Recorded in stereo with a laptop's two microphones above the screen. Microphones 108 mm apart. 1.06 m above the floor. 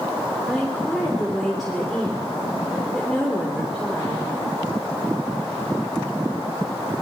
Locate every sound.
0.5 s a woman speaking: centre (ahead or behind), 3.5 m